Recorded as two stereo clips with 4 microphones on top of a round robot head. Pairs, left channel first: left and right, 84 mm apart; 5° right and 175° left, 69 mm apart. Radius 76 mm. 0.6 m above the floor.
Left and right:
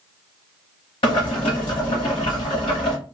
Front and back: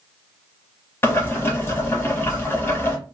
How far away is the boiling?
About 1.0 m.